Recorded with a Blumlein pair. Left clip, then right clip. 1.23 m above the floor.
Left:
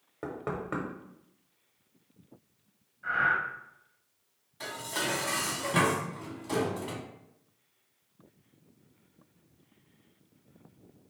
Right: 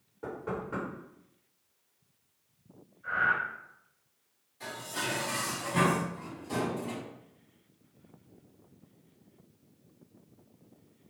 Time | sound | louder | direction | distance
0.2 | knocking | left 1 dB | 55° left | 1.0 m
3.0 | breathing | left 1 dB | 55° left | 1.1 m
4.6 | dishes clattering | left 2 dB | 40° left | 0.9 m